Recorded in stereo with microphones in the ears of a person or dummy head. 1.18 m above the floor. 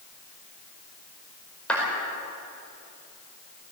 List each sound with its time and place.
1.7 s a clap: 10° left (ahead or behind), 5 m